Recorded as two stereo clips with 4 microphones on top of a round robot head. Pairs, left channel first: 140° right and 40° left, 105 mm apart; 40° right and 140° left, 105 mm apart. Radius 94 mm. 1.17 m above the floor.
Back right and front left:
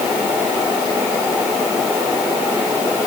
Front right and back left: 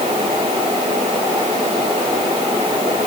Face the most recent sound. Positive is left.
No sound to turn to.